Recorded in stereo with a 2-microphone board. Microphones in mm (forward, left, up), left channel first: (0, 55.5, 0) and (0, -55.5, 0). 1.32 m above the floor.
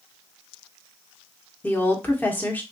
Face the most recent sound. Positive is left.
turn(degrees=15)  # may be behind; listen again after turning